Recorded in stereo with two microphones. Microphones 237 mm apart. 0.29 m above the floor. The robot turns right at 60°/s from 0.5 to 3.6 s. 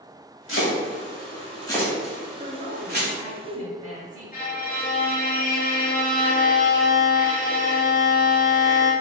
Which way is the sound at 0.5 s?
55° left (ahead or behind).